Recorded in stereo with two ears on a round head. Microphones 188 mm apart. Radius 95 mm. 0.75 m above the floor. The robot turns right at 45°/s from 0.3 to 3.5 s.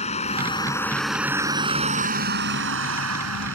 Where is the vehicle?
145° left; by 3.6 s 70° right.